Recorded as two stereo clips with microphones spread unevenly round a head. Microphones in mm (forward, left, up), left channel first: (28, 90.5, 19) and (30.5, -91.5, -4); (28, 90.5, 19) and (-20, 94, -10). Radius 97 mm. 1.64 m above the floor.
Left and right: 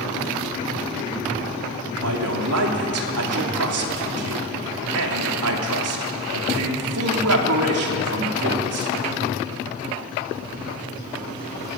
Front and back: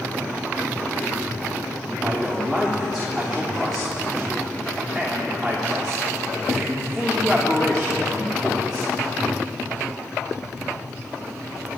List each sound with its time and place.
2.0 s a man speaking: 90° right, 3 m